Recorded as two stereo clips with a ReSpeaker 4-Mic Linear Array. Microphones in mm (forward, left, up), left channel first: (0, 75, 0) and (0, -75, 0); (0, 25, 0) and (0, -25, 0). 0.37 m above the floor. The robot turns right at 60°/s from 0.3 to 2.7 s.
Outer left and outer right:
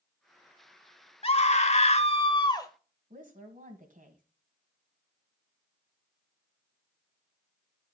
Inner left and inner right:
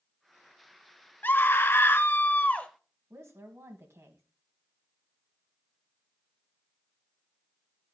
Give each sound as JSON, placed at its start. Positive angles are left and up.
{"t": 1.2, "sound": "a scream", "azimuth_deg": 60, "distance_m": 1.2}
{"t": 3.1, "sound": "a woman speaking", "side_deg": -65, "distance_m": 2.0}